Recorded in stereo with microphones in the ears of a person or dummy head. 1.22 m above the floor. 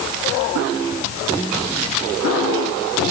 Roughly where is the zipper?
No zipper in this recording.